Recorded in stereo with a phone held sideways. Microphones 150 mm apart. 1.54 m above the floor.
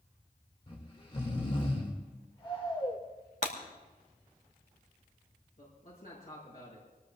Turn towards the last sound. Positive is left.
turn(degrees=65)  # may be behind; listen again after turning